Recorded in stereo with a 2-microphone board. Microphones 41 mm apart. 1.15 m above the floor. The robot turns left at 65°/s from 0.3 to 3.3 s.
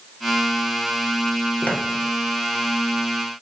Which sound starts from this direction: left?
Footsteps, at 1.6 s.